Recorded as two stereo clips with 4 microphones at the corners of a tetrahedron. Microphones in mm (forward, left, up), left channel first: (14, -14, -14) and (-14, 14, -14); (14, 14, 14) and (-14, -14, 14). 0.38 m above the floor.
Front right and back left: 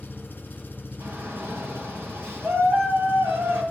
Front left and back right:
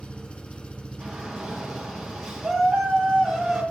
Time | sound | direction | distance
0.0 | an engine running | 10° right | 2.5 m
1.0 | a shout | 150° left | 7.5 m